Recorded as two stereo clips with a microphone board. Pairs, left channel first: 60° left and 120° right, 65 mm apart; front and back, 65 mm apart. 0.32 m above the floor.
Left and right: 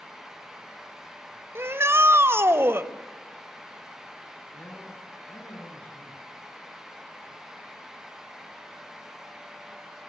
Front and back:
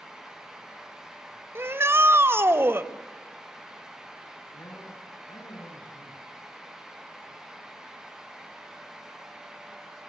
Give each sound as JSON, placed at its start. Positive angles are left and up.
{"t": 1.6, "sound": "a shout", "azimuth_deg": -150, "distance_m": 1.3}
{"t": 4.5, "sound": "a man speaking", "azimuth_deg": 5, "distance_m": 4.5}